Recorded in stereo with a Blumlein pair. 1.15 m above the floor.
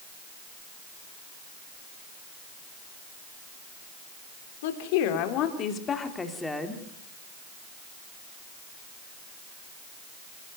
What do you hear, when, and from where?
4.6 s a woman speaking: 55° left, 3.5 m; by 6.8 s 5° right, 3 m